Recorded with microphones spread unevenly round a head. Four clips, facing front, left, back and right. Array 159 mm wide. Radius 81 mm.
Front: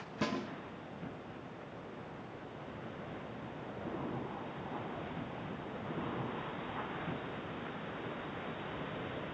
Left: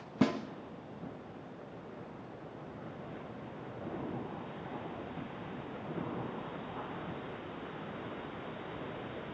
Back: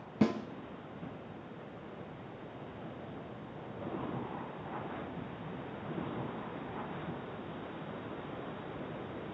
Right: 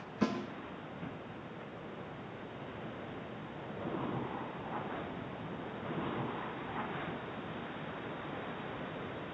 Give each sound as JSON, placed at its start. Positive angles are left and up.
{"t": 0.2, "sound": "a snare drum", "azimuth_deg": 125, "distance_m": 2.5}